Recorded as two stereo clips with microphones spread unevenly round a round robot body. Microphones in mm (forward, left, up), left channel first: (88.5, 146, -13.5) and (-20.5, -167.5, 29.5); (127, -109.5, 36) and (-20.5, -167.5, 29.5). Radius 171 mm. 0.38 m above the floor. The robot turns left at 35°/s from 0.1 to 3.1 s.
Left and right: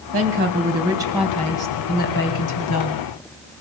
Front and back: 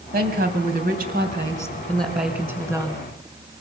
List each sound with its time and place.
0.1 s a woman speaking: 165° right, 3 m; by 3.0 s 95° left, 3 m